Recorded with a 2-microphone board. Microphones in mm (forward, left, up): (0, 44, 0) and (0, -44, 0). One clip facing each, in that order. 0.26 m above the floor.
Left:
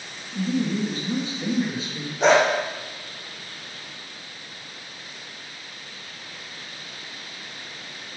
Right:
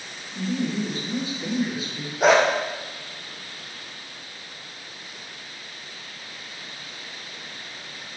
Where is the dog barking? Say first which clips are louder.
Even; 5° right (ahead or behind), 3 m.